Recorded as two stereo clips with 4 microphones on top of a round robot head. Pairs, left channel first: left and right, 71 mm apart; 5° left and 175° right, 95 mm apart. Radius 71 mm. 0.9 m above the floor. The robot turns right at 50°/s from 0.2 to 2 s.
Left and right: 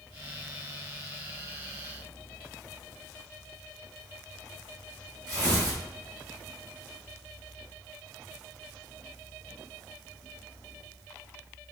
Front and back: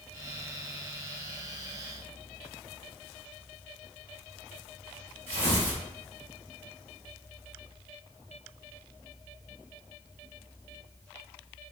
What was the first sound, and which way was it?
Tearing paper, 135° right.